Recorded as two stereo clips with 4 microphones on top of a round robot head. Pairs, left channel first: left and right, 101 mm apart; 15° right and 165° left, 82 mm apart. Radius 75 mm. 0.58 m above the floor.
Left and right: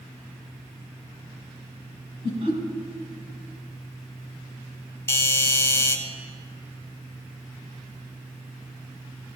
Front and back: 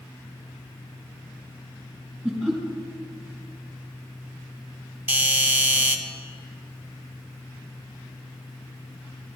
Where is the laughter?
95° right, 3 m.